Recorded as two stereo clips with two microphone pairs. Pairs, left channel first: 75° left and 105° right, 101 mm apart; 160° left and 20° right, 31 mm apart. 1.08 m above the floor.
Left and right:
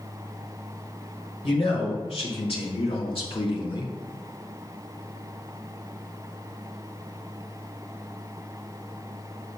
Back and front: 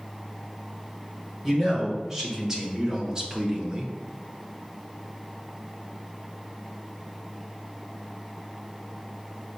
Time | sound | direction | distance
1.4 | a man speaking | 60° left | 3 m